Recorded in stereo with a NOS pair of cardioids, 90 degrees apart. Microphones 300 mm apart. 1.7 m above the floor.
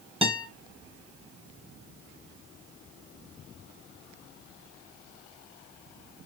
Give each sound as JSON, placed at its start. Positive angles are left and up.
{"t": 0.2, "sound": "a guitar", "azimuth_deg": -20, "distance_m": 1.1}